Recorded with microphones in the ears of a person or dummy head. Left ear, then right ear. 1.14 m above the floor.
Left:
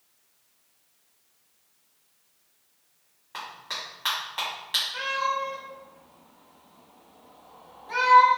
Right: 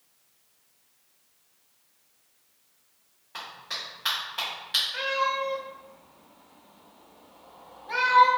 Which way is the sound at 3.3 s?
30° left (ahead or behind).